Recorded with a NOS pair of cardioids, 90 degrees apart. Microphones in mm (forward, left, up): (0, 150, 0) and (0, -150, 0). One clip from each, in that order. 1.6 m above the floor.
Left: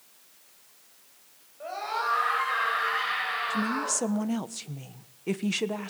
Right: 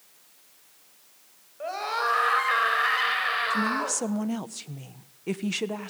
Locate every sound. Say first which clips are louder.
1.6 s a scream: right 3 dB; 45° right, 9 m; by 4.0 s 60° right, 8.5 m
3.5 s a woman speaking: right 3 dB; 5° left, 1.2 m